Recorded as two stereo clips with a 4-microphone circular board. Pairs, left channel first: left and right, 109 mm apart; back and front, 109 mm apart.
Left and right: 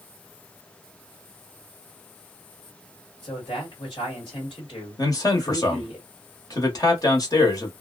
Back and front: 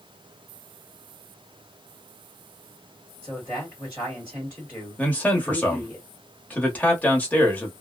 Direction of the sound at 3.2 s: 75° left.